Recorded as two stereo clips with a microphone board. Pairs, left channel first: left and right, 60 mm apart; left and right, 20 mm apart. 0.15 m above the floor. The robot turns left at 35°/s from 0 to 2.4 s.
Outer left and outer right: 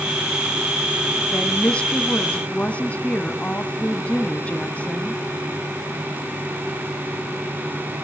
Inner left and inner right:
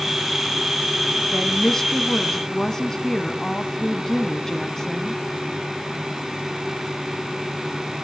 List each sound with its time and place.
1.3 s a woman speaking: 15° left (ahead or behind), 1.1 m; by 5.2 s 20° left (ahead or behind), 1.1 m